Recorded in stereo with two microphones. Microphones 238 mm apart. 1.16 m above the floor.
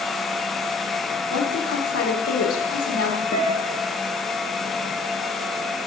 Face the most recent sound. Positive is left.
turn(degrees=60)  # may be behind; listen again after turning